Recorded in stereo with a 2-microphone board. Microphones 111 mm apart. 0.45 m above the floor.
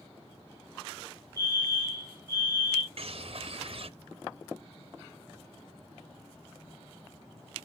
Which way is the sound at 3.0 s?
60° right (ahead or behind).